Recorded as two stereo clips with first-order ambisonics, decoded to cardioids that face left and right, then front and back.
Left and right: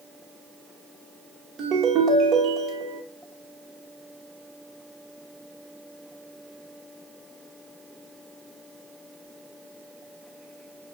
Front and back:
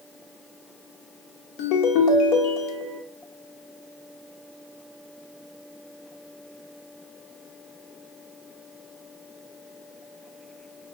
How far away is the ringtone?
About 0.9 m.